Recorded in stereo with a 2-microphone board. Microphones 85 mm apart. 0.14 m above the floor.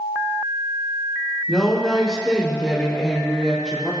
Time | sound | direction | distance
1.5 | a woman speaking | 5° right (ahead or behind) | 5.5 m